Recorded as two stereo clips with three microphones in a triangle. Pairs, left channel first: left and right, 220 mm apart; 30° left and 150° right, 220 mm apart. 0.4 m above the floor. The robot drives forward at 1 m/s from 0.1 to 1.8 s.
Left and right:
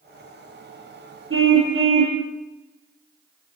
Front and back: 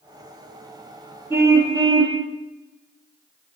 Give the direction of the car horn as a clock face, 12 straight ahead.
2 o'clock.